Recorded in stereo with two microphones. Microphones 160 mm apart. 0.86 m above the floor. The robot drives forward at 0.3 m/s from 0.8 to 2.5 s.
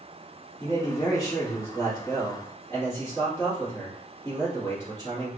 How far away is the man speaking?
About 1.3 m.